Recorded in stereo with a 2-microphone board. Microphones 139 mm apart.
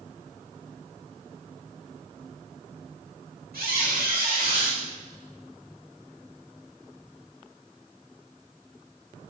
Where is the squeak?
85° right, 3.5 m.